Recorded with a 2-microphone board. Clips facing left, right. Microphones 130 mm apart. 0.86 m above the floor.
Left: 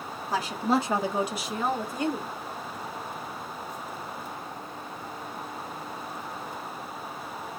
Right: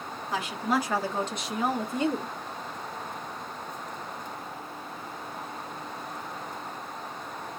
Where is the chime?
No chime in this recording.